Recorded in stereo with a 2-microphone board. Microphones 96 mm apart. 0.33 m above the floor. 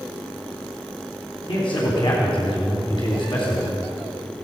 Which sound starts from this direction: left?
A man speaking, at 1.5 s.